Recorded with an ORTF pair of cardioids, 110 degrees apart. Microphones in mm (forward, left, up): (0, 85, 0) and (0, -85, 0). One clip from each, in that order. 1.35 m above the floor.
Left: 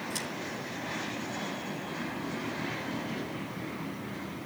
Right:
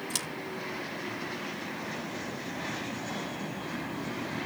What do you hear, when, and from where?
0.1 s scissors: 60° right, 2.5 m